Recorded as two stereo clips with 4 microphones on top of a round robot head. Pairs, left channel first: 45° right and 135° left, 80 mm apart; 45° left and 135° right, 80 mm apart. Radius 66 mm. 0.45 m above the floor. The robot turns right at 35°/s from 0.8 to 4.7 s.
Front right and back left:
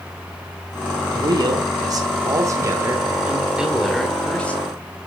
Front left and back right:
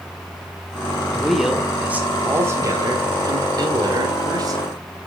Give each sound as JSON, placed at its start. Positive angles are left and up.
{"t": 1.1, "sound": "a man speaking", "azimuth_deg": 130, "distance_m": 1.8}